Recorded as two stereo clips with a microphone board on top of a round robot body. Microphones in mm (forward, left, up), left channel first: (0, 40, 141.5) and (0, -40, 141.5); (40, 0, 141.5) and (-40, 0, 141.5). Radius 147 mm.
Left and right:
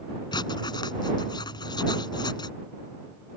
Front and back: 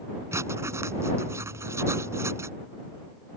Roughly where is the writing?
Behind left.